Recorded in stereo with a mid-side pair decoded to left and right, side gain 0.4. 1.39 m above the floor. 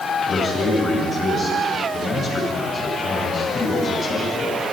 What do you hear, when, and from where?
0.3 s a man speaking: 45° left, 9 m